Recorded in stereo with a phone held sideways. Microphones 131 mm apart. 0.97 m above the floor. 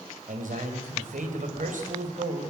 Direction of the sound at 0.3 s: 80° right.